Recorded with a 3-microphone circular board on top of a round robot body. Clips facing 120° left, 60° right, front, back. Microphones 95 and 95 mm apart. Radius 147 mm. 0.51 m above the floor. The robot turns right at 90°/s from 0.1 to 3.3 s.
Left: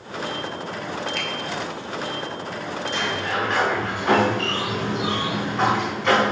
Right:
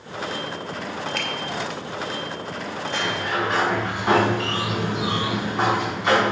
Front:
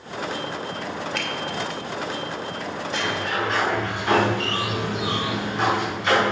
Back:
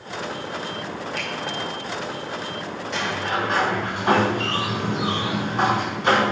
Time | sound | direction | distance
1.1 | a finger snap | 20° right | 3.5 m
2.9 | a sliding door | 170° right | 6 m